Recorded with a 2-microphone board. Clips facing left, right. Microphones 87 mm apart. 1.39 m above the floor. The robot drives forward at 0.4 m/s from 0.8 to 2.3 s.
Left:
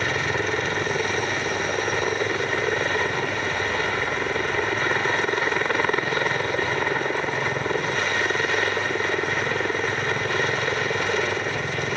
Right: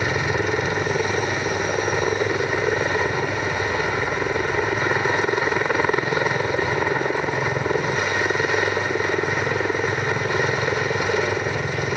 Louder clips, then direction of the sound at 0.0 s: Right 2 dB; 10° right (ahead or behind).